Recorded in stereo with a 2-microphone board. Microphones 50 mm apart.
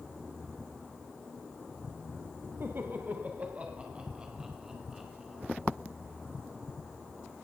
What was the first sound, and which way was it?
Laughter, 50° right (ahead or behind).